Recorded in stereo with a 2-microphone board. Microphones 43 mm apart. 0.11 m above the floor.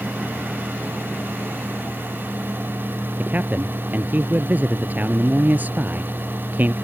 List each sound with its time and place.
3.2 s a man speaking: 40° right (ahead or behind)